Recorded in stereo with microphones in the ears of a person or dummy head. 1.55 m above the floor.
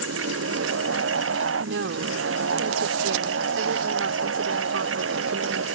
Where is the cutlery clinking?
I don't hear cutlery clinking.